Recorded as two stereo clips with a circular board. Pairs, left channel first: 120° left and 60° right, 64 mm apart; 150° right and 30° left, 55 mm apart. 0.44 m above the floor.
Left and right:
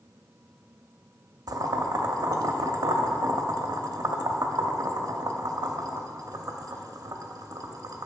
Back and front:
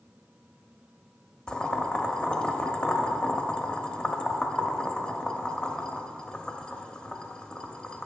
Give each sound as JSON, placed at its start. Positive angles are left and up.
{"t": 1.5, "sound": "boiling", "azimuth_deg": -75, "distance_m": 0.5}